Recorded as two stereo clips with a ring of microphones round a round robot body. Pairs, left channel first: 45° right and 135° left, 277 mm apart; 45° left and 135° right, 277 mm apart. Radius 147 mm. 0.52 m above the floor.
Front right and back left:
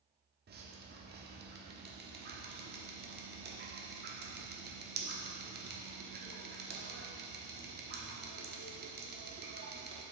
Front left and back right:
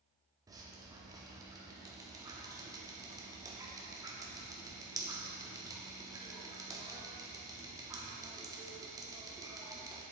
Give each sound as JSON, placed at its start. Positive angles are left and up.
{"t": 0.5, "sound": "dripping", "azimuth_deg": 155, "distance_m": 1.2}